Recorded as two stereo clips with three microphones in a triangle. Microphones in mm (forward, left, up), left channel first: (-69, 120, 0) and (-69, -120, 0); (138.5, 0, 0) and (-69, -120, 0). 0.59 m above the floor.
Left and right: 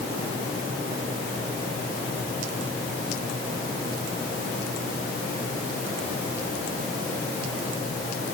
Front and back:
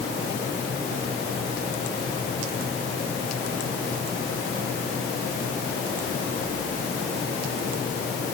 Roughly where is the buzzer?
I don't hear a buzzer.